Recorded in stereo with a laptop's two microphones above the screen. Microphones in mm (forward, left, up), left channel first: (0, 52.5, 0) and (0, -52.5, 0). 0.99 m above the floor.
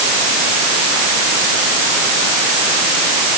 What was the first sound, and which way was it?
Only background noise.